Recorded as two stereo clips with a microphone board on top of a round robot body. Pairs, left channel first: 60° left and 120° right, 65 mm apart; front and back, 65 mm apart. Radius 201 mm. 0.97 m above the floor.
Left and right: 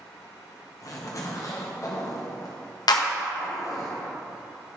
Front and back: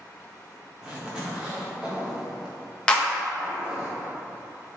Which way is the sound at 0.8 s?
100° left.